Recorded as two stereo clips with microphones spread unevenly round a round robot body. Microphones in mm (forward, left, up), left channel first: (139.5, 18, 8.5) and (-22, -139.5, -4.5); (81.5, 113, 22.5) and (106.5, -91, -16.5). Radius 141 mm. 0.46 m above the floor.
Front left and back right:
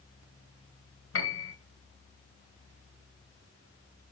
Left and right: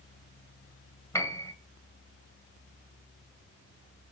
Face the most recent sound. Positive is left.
turn(degrees=15)